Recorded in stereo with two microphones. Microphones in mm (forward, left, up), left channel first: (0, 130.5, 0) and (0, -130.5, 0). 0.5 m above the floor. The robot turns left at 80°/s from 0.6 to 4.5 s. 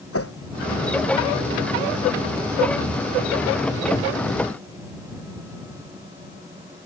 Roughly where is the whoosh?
Left.